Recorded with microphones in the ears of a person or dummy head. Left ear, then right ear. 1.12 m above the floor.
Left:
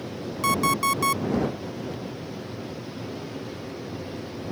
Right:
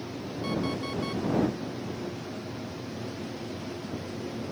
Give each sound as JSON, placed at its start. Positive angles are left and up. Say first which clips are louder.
{"t": 0.4, "sound": "an alarm clock", "louder": "left 11 dB", "side_deg": 55}